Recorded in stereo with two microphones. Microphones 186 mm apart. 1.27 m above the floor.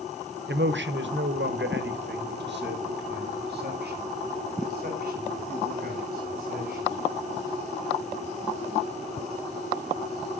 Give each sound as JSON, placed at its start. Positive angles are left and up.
{"t": 0.5, "sound": "a man speaking", "side_deg": -70, "distance_m": 0.9}